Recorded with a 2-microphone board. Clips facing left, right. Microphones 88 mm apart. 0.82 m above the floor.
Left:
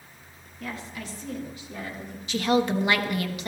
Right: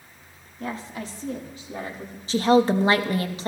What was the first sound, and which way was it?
A woman speaking, 40° right (ahead or behind).